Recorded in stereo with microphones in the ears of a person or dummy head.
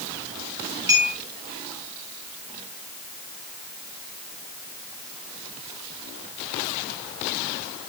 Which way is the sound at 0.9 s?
15° right (ahead or behind).